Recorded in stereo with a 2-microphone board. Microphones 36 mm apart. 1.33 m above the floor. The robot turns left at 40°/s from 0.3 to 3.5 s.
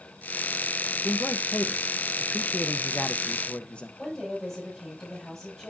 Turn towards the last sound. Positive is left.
turn(degrees=10)  # may be behind; listen again after turning